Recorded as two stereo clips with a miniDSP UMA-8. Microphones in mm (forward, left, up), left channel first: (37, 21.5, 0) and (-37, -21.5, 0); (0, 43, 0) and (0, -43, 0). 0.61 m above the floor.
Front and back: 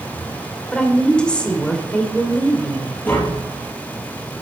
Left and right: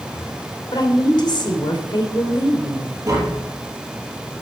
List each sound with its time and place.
0.7 s a woman speaking: 105° left, 2.5 m
3.1 s tapping: 40° right, 4 m